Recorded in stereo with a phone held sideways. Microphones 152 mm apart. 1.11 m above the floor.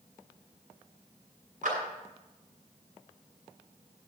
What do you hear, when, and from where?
1.6 s a clap: 65° right (ahead or behind), 7 m